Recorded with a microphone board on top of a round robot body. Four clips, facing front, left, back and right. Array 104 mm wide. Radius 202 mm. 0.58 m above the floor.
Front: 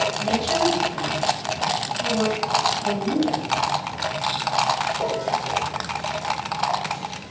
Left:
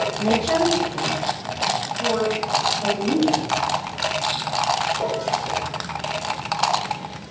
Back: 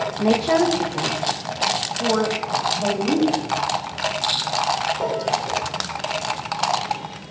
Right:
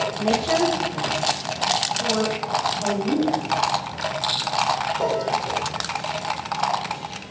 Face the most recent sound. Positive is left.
turn(degrees=-175)